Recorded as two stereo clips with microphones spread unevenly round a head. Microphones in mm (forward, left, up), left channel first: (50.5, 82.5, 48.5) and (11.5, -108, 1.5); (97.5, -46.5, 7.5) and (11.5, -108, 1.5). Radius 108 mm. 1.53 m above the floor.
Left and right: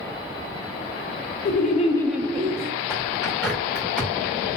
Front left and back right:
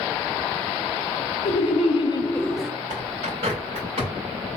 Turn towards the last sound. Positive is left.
turn(degrees=160)